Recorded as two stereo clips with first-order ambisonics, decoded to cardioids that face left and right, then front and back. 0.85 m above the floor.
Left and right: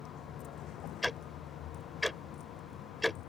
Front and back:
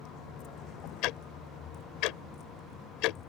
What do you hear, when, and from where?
0.0 s a vehicle: 45° left; by 3.3 s 55° left
1.0 s ticking: 5° left